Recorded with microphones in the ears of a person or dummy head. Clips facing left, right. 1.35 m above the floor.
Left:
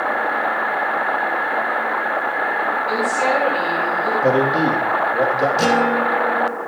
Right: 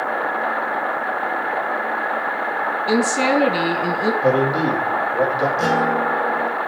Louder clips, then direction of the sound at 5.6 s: Left 2 dB; 50° left (ahead or behind).